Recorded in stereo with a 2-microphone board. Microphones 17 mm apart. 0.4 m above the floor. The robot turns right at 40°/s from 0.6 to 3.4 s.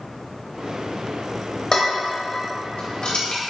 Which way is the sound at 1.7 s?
45° left (ahead or behind).